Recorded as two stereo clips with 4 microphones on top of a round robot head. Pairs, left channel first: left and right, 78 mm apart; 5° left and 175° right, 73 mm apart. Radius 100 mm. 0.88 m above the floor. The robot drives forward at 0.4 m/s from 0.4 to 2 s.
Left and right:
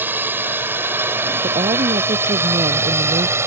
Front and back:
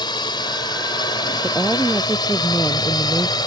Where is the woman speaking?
80° right.